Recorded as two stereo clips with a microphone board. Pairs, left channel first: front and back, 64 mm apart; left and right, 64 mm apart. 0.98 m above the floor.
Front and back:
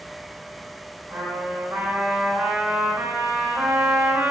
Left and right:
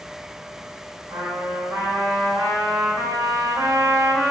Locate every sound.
1.1 s a trumpet: 115° right, 1.5 m